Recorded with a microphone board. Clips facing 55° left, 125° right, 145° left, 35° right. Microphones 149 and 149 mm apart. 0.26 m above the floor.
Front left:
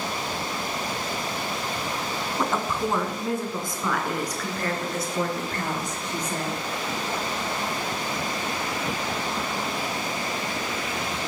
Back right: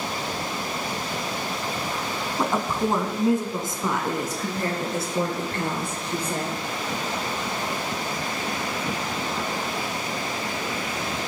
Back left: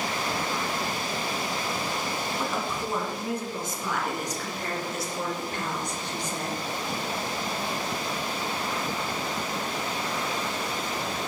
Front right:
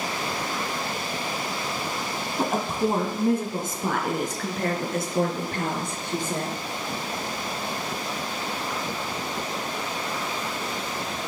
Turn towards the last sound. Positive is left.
turn(degrees=-70)